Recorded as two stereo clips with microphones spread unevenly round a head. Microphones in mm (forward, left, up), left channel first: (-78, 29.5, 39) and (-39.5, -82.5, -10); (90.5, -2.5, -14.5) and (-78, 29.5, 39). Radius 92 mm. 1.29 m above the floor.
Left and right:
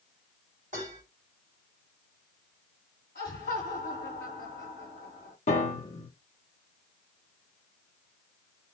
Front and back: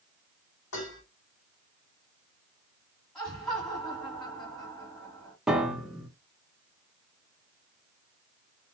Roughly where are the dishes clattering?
Ahead.